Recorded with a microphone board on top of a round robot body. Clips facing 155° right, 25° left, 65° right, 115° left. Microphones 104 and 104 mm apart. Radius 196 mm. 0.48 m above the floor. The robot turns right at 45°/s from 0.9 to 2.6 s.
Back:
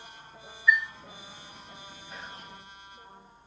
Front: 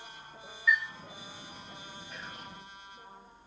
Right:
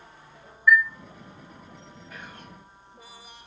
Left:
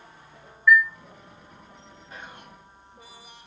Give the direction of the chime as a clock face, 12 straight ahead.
12 o'clock.